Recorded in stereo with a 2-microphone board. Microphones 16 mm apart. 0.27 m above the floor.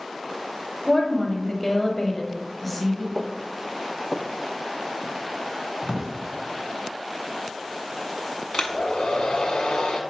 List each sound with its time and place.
0.9 s a woman speaking: 35° left (ahead or behind), 1.4 m; by 3.0 s centre (ahead or behind), 1.4 m
3.1 s footsteps: 25° right (ahead or behind), 0.8 m; by 6.1 s 40° right (ahead or behind), 1.5 m
5.8 s a drawer: 55° right (ahead or behind), 1.5 m
8.5 s a hair dryer: 60° left (ahead or behind), 1.1 m